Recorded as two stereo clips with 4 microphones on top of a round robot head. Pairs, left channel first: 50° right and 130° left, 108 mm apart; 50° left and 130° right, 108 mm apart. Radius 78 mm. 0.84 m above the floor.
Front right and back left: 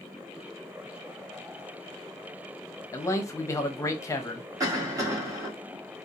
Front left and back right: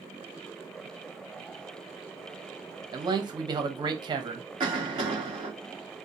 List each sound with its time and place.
2.9 s a man speaking: 105° right, 0.9 m
4.6 s a cough: 175° right, 2 m